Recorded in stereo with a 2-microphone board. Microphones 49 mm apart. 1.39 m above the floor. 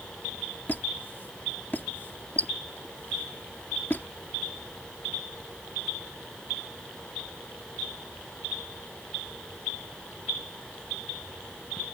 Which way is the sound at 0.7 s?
40° left (ahead or behind).